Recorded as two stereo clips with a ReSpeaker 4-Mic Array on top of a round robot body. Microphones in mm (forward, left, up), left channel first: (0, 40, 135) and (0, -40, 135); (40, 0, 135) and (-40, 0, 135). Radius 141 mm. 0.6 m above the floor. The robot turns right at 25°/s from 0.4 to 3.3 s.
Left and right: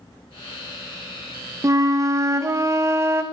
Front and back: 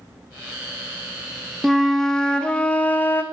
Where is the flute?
90° right, 0.6 m; by 3.2 s 50° right, 0.6 m.